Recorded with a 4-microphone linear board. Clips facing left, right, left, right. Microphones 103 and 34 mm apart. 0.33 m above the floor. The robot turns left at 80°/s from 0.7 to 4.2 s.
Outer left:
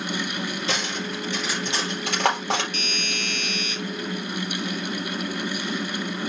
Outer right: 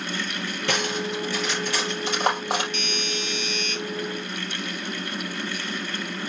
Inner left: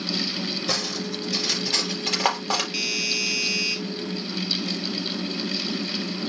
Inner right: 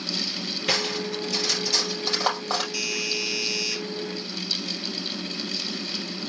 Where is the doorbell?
125° left, 2.5 m; by 3.8 s 40° left, 2.5 m.